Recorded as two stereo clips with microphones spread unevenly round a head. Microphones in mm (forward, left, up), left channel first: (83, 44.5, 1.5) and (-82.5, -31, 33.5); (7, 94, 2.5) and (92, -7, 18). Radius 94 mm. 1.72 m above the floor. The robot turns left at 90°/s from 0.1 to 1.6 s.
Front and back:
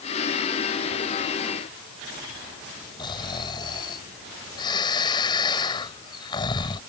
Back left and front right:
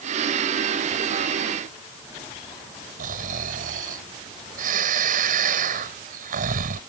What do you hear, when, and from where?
3.0 s snoring: 45° right